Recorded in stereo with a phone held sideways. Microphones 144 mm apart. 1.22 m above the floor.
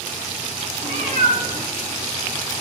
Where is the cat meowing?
60° right (ahead or behind), 1.3 m.